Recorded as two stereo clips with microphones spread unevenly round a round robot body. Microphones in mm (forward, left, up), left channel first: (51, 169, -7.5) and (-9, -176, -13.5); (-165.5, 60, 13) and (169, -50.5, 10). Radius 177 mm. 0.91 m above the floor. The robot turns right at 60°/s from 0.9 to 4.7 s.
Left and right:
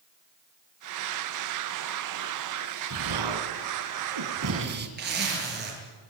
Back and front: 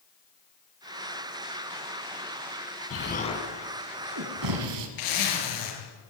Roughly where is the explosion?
Behind right.